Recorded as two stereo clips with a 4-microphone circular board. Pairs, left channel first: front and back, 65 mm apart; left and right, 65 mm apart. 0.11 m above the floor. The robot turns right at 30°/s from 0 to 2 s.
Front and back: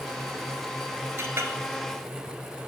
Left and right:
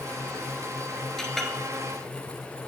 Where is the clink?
170° left, 1.1 m; by 1.5 s straight behind, 1.1 m.